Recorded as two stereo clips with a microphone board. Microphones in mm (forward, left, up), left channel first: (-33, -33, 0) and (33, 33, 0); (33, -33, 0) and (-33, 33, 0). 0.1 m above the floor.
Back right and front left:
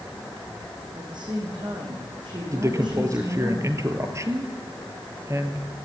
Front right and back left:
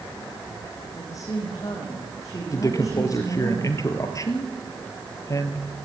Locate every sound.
0.9 s a woman speaking: 5° left, 7.5 m
2.5 s a man speaking: 5° right, 2 m